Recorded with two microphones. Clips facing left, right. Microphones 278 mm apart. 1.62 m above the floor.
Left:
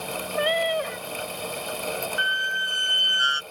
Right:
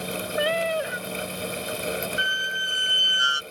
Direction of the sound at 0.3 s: 5° right (ahead or behind).